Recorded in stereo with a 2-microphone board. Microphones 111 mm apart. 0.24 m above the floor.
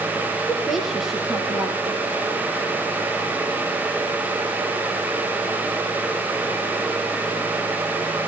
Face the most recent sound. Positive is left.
turn(degrees=0)  # may be behind; listen again after turning